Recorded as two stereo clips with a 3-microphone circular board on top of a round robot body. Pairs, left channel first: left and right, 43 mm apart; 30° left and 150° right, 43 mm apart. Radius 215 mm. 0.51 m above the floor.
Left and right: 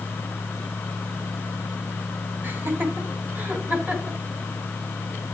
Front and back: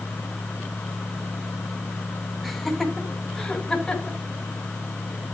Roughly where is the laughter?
Ahead right.